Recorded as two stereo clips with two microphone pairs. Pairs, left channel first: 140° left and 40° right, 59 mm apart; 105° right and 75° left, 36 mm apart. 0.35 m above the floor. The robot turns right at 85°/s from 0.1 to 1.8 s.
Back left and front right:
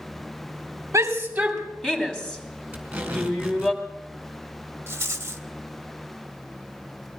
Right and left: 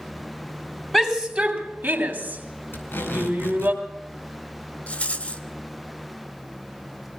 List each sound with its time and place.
0.9 s a shout: 15° right, 3 m; by 3.7 s 60° left, 3 m
2.7 s tape being pulled: 115° right, 4.5 m
4.9 s a rattle: 75° right, 1.2 m